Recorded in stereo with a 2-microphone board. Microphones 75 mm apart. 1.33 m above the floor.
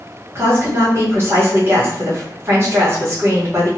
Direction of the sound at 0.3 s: 35° right (ahead or behind).